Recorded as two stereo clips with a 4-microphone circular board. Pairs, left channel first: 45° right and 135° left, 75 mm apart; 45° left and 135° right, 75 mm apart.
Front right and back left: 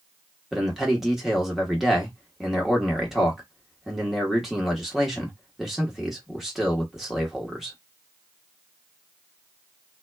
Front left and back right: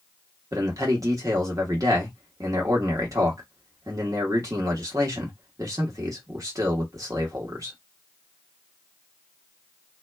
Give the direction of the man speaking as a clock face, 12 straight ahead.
5 o'clock.